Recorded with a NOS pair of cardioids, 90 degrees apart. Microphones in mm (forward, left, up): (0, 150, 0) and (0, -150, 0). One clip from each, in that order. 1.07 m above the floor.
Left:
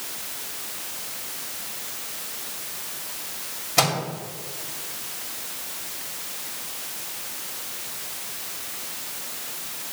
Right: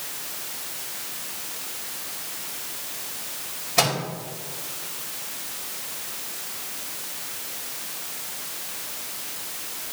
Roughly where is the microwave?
Ahead.